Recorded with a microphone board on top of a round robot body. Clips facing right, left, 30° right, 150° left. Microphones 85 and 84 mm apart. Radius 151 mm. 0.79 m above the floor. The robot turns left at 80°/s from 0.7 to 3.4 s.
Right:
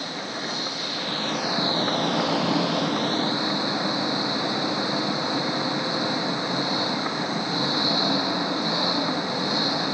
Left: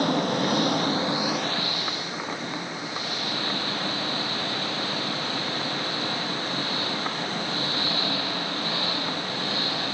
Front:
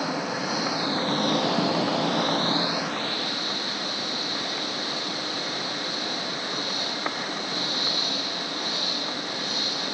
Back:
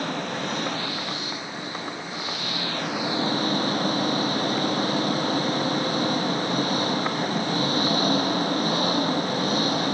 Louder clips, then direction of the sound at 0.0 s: Left 8 dB, front 1 dB; 55° left.